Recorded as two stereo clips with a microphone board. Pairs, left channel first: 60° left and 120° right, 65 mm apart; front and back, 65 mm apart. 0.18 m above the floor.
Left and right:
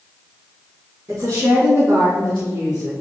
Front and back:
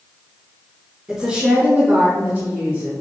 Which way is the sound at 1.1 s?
110° right.